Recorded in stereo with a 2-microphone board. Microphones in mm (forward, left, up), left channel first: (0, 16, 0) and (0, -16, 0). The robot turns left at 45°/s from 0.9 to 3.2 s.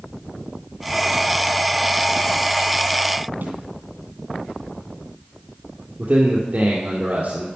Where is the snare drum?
70° right (ahead or behind), 2.5 m.